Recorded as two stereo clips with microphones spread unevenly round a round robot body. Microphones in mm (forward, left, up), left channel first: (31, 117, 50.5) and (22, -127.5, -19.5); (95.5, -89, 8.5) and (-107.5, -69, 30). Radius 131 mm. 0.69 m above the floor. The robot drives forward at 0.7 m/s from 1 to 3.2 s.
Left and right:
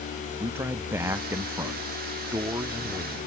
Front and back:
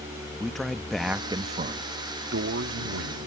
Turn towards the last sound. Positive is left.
turn(degrees=-170)